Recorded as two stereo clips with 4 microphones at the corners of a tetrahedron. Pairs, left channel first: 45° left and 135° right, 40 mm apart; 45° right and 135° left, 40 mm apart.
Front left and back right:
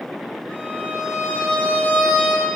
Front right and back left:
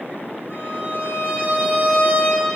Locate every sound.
0.5 s a violin: 110° left, 9.5 m